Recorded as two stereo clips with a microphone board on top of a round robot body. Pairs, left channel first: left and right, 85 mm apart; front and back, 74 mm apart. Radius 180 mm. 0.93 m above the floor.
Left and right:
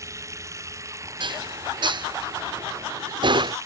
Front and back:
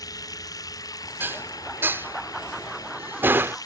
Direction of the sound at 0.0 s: 35° right.